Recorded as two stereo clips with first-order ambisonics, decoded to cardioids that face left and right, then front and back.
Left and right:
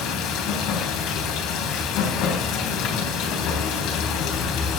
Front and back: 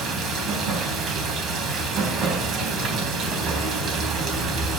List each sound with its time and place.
0.0 s running water: 130° left, 3.5 m